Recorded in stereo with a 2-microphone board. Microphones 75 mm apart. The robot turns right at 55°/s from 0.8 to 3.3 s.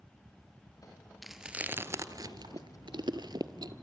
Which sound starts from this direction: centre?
Chewing, at 1.2 s.